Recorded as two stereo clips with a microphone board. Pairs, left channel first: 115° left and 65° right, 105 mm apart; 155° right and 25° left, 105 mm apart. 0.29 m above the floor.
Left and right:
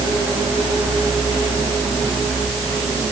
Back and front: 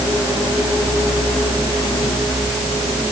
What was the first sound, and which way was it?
Only background noise.